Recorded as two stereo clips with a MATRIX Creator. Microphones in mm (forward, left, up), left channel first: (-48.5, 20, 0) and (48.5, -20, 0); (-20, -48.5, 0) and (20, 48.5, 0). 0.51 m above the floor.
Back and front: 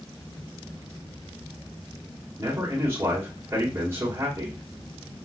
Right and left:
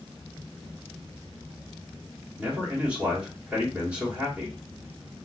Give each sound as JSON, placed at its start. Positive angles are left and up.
{"t": 2.4, "sound": "a man speaking", "azimuth_deg": 5, "distance_m": 1.2}